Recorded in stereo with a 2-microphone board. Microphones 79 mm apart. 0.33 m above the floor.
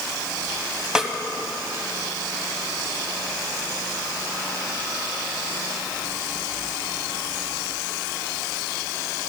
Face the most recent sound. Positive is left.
turn(degrees=-5)  # may be behind; listen again after turning